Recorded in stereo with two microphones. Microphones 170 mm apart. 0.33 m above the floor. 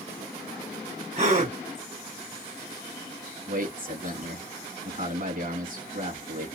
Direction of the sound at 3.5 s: 55° right (ahead or behind).